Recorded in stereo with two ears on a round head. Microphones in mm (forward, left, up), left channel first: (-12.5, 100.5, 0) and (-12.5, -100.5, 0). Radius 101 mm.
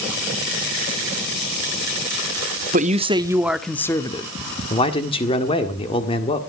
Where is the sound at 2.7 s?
35° right (ahead or behind), 0.8 m; by 4.3 s 20° left (ahead or behind), 1.1 m.